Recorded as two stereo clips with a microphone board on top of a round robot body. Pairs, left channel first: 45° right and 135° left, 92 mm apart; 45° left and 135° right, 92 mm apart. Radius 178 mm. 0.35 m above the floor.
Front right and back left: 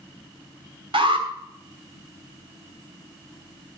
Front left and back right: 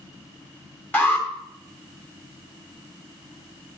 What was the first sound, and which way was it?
An alarm, 115° left.